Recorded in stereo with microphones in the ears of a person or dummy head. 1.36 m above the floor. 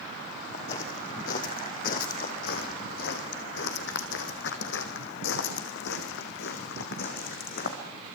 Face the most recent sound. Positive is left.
turn(degrees=60)  # may be behind; listen again after turning